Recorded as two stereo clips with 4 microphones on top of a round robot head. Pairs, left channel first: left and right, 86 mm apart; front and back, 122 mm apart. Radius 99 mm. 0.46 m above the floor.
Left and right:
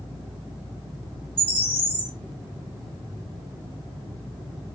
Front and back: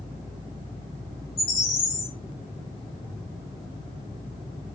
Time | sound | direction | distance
1.4 | a bird | 20° right | 1.0 m